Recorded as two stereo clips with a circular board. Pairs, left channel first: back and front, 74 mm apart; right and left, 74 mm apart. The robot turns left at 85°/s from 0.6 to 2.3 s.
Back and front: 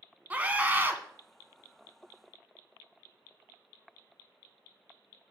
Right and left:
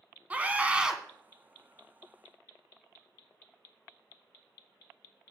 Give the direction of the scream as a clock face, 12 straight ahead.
11 o'clock.